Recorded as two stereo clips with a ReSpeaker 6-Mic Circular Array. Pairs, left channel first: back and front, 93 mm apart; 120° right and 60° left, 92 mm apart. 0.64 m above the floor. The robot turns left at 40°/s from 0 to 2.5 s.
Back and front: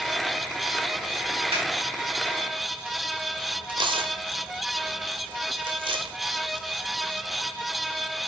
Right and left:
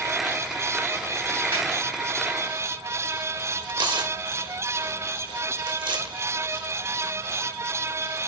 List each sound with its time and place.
1.5 s a snare drum: 5° right, 3.5 m; by 1.7 s 10° right, 3.5 m
3.7 s tearing paper: 30° left, 0.6 m